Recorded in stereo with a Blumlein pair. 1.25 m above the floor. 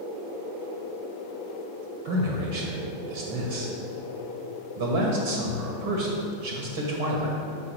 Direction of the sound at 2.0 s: 55° right.